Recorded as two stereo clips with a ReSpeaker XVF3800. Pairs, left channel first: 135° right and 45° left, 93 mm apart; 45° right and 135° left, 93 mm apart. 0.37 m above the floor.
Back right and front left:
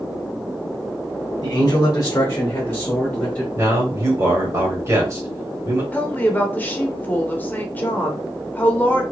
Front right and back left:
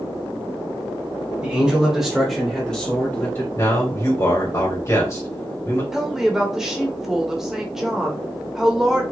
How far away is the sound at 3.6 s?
About 2 m.